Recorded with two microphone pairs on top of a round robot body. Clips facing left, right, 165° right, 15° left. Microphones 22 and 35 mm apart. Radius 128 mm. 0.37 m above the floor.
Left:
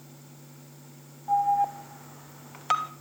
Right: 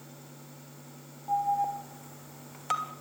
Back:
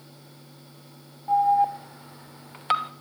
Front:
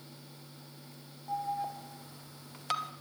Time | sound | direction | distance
1.3 | an alarm | 160° left | 1.3 m